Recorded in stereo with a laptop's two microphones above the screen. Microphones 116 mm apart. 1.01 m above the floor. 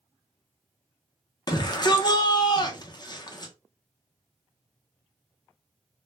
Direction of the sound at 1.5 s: 35° left (ahead or behind).